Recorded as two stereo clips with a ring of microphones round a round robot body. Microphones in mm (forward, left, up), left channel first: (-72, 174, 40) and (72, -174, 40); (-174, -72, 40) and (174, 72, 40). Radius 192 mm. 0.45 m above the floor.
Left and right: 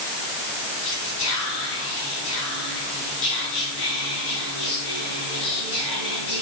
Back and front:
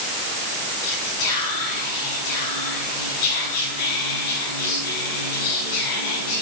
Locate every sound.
0.8 s whispering: 170° left, 4.5 m